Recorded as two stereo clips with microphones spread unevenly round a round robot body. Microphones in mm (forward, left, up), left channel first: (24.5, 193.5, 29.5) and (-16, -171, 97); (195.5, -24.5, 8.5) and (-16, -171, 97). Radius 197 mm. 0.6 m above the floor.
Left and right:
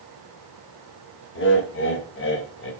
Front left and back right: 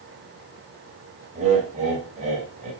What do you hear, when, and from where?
1.4 s laughter: 140° left, 3.5 m